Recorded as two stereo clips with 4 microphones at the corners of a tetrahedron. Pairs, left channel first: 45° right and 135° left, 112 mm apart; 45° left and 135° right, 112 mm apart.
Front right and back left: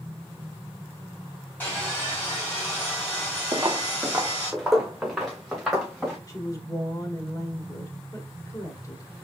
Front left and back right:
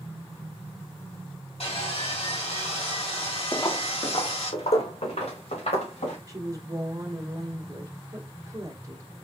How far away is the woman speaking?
About 1.3 m.